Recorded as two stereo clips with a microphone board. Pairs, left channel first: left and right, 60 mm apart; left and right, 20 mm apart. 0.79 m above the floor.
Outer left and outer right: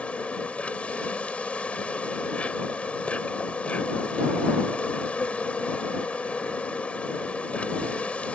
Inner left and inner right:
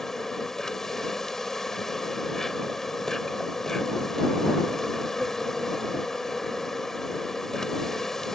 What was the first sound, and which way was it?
An insect, 20° left (ahead or behind).